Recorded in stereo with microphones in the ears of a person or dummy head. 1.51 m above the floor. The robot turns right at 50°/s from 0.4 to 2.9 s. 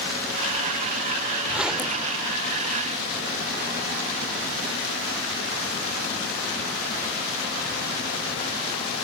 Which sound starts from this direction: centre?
A zipper, at 1.5 s.